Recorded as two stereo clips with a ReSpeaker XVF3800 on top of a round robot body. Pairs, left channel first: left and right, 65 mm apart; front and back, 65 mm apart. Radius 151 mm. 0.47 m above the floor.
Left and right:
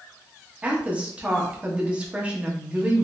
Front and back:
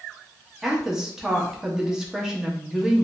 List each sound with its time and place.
0.6 s a woman speaking: 115° right, 1.1 m